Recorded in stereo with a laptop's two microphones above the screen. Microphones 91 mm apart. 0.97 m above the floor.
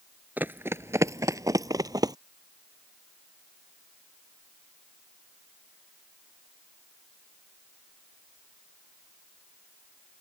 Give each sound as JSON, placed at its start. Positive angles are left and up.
{"t": 0.4, "sound": "running footsteps", "side_deg": -20}